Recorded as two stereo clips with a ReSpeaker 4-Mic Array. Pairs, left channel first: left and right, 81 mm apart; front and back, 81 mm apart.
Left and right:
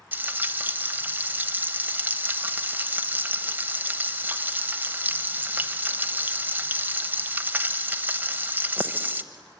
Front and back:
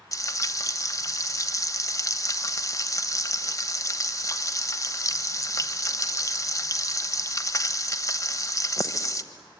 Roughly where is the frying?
Ahead right.